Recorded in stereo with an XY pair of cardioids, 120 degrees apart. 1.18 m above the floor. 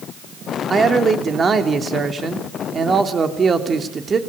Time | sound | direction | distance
0.7 | a man speaking | 30° right | 3 m